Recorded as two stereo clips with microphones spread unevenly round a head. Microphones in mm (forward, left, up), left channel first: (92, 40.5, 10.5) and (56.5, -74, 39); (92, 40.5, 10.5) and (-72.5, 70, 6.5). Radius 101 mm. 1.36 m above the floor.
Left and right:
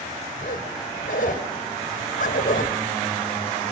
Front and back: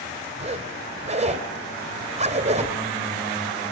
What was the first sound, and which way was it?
A zipper, 125° left.